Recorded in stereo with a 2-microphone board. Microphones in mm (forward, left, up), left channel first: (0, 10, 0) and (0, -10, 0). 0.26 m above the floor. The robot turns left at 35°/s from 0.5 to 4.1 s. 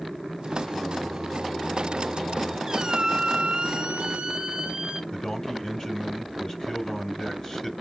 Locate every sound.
0.7 s singing: 140° left, 4 m; by 2.6 s 75° left, 4 m
2.7 s a squeak: 35° right, 0.7 m; by 5.0 s 85° right, 0.7 m
5.1 s a man speaking: 30° left (ahead or behind), 1.5 m